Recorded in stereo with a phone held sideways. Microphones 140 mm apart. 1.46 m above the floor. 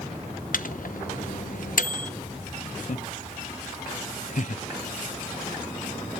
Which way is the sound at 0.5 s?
70° left (ahead or behind).